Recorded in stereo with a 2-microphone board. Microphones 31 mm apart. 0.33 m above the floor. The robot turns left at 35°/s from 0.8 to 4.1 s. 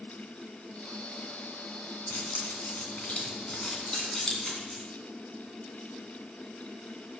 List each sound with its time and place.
2.1 s keys jangling: 70° left (ahead or behind), 2.5 m; by 4.8 s 15° left (ahead or behind), 2.5 m
3.9 s a dropped coin: 25° left (ahead or behind), 5 m; by 4.2 s 20° left (ahead or behind), 5 m